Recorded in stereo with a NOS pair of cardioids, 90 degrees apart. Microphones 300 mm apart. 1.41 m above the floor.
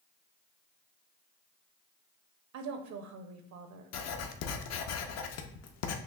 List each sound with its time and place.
2.5 s a woman speaking: 70° right, 0.7 m
3.9 s writing: 60° left, 0.5 m